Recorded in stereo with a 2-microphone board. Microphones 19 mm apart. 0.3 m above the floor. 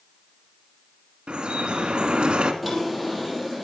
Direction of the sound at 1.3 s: 70° right (ahead or behind).